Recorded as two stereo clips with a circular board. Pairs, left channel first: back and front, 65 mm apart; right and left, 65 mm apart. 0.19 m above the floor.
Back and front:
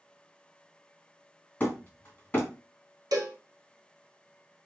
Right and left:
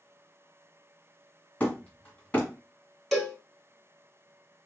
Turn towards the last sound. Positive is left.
turn(degrees=0)